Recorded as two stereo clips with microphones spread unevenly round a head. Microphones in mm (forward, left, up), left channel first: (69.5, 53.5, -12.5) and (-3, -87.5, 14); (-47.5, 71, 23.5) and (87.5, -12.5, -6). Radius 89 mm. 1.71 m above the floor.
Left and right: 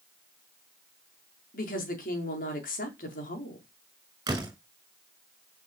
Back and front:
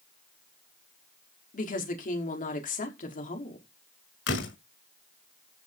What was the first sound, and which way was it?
A woman speaking, 110° left.